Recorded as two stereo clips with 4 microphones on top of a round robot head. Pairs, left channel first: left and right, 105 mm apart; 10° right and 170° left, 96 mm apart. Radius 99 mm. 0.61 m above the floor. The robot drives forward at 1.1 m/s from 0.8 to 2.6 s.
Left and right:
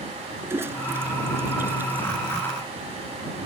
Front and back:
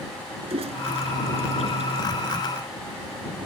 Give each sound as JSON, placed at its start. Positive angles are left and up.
{"t": 0.4, "sound": "a toilet flushing", "azimuth_deg": -160}